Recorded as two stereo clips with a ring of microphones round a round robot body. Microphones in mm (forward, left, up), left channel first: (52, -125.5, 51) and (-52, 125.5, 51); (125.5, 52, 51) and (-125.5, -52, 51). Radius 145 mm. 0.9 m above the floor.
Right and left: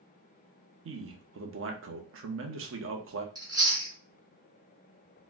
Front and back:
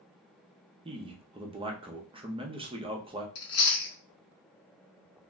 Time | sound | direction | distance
0.8 | a man speaking | 135° left | 0.7 m
3.4 | chewing | 35° left | 1.1 m